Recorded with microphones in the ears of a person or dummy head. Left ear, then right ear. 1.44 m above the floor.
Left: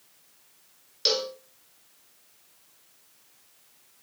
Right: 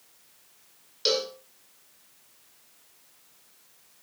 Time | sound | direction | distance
1.1 | a cowbell | 10° left (ahead or behind) | 0.8 m